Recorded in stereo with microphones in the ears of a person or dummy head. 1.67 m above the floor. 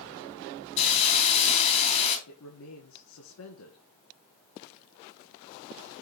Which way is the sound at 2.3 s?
85° left.